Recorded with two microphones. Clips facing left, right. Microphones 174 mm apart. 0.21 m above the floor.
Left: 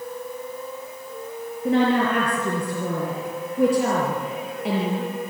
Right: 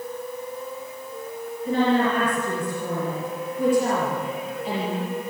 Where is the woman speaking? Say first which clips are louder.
Left 1 dB; 70° left (ahead or behind), 5.5 m.